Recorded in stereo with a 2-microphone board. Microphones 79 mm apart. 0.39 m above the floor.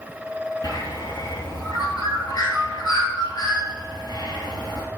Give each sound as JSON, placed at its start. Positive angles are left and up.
{"t": 0.6, "sound": "a bird", "side_deg": 70, "distance_m": 2.0}